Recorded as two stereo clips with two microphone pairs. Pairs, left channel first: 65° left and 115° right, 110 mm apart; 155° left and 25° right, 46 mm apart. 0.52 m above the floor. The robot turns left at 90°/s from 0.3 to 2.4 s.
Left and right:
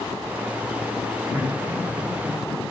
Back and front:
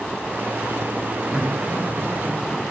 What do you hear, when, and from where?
1.3 s laughter: 100° right, 1.3 m; by 2.6 s 165° left, 1.3 m